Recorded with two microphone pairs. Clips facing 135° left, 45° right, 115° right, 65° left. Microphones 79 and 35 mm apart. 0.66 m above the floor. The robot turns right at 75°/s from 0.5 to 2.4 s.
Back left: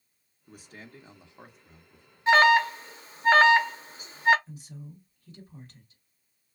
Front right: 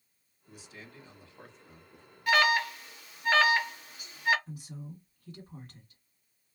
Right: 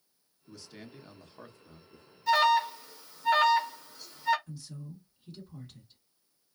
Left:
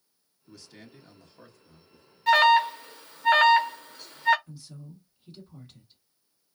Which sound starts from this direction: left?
An alarm, at 2.3 s.